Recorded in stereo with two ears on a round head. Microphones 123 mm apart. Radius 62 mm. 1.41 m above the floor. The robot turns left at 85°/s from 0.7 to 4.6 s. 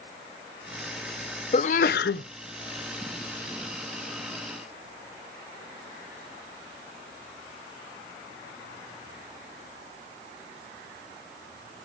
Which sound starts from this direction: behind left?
A sneeze, at 1.5 s.